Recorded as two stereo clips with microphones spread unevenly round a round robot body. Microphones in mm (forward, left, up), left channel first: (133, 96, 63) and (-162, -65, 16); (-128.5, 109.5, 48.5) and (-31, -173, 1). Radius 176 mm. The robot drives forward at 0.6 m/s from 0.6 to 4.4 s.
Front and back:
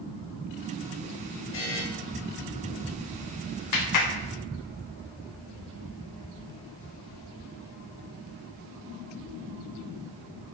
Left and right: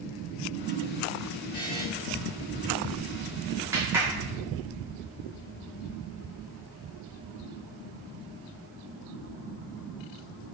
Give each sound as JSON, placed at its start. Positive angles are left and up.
{"t": 1.5, "sound": "a buzzer", "azimuth_deg": 30, "distance_m": 3.5}
{"t": 3.7, "sound": "a clap", "azimuth_deg": 5, "distance_m": 1.4}